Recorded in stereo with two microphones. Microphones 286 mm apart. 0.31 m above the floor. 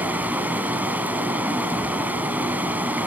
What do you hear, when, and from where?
0.0 s running water: 5° right (ahead or behind), 2.5 m